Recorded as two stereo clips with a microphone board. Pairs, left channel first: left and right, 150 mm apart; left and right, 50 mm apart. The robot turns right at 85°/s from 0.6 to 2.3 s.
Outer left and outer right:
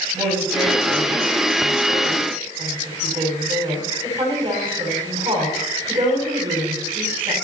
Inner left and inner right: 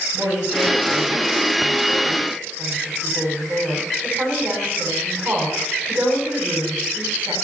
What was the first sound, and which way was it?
A woman speaking, straight behind.